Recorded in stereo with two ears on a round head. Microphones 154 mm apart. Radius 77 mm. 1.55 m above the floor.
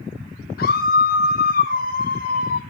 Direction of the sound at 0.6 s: 60° left (ahead or behind).